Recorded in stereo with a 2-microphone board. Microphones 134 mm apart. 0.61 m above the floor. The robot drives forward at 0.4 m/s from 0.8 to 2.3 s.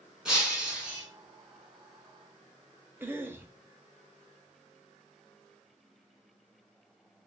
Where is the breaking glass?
5° right (ahead or behind), 1.9 m.